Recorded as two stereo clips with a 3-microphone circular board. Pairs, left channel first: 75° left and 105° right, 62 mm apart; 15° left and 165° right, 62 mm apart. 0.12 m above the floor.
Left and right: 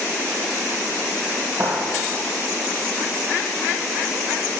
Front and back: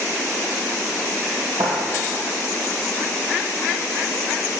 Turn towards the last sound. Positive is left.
turn(degrees=-160)